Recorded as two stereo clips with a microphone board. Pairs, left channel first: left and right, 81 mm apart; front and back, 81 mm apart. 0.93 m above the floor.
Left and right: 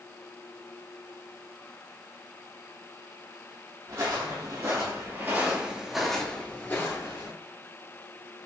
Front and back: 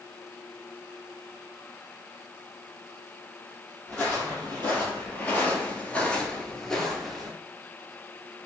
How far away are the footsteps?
About 1.8 m.